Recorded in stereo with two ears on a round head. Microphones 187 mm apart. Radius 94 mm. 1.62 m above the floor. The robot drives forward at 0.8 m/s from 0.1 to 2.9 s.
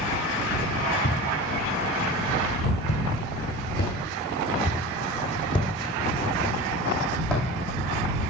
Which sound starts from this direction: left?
Footsteps, at 1.0 s.